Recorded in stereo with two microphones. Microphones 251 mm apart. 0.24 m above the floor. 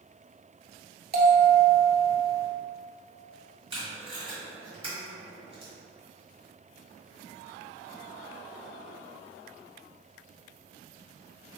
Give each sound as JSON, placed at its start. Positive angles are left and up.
{"t": 1.1, "sound": "a bell", "side_deg": -40, "distance_m": 0.6}
{"t": 3.7, "sound": "tape being pulled", "side_deg": -20, "distance_m": 1.3}